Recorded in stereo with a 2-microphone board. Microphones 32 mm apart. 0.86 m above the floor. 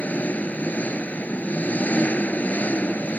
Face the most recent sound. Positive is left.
turn(degrees=60)  # may be behind; listen again after turning